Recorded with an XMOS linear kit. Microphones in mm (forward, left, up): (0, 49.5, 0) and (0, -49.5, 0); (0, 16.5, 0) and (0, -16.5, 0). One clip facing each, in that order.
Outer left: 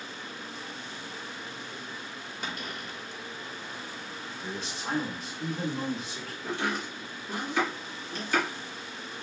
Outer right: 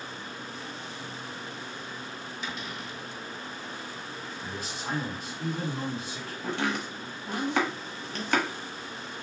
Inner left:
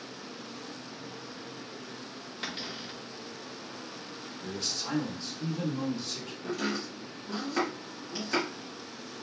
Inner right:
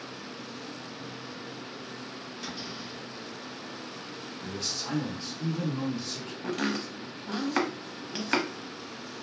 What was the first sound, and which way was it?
A cupboard door, 50° left (ahead or behind).